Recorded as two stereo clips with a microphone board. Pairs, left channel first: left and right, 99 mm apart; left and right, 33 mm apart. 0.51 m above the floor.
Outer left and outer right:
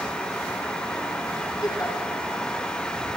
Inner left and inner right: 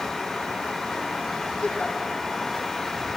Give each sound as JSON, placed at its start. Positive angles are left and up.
{"t": 1.6, "sound": "a giggle", "side_deg": 40, "distance_m": 4.0}